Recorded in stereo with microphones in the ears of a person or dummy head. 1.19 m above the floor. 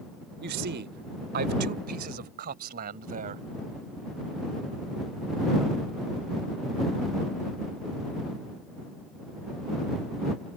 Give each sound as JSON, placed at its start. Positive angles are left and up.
{"t": 0.4, "sound": "a man speaking", "side_deg": -60}